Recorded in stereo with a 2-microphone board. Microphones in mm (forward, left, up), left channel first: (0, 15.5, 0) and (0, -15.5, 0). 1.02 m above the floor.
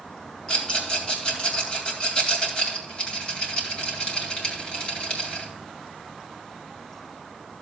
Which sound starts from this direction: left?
A rattle, at 0.5 s.